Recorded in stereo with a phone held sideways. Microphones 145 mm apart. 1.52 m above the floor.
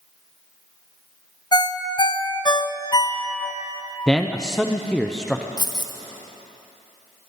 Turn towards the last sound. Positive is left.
turn(degrees=30)  # may be behind; listen again after turning